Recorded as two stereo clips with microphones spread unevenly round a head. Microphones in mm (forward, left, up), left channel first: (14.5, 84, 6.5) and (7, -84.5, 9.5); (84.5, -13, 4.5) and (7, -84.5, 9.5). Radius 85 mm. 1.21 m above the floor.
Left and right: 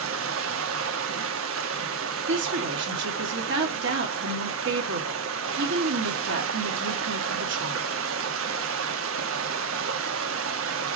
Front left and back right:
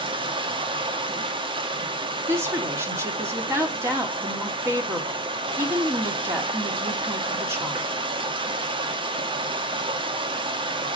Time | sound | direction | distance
0.0 | running water | 95° right | 1.3 m
2.3 | a woman speaking | 70° right | 2.5 m